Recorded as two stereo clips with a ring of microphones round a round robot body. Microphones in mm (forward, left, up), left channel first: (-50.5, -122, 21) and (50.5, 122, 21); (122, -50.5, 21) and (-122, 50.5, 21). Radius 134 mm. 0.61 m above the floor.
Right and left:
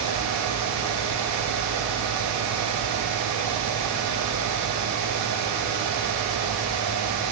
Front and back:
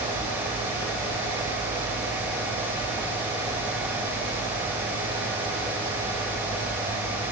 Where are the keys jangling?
No keys jangling in this recording.